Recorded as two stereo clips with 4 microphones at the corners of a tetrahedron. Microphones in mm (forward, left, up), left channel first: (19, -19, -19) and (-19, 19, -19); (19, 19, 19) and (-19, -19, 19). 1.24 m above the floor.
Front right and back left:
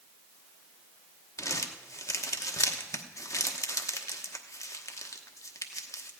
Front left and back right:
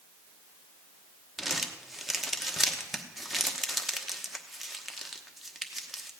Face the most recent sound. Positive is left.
turn(degrees=-50)